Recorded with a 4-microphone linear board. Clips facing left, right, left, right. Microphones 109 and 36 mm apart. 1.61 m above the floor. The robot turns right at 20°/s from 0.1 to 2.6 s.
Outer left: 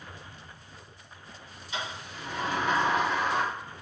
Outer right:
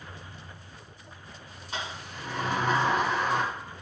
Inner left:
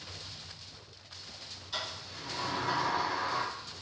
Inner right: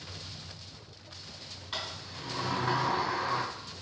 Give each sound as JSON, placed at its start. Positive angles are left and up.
{"t": 1.7, "sound": "a sliding door", "side_deg": -45, "distance_m": 1.9}